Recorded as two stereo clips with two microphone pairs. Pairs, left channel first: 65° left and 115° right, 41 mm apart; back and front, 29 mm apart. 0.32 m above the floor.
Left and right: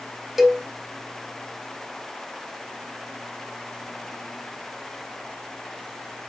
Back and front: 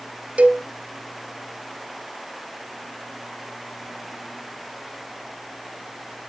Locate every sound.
0.4 s a cowbell: 30° right, 1.2 m